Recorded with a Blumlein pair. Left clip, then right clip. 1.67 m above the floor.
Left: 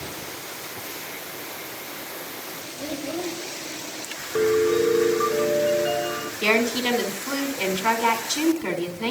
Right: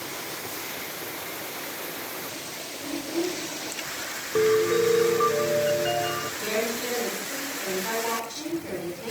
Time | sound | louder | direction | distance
2.8 | a child speaking | even | 65° left | 8 m
4.3 | a piano | left 1 dB | straight ahead | 1.5 m
6.4 | a woman speaking | left 9 dB | 55° left | 5 m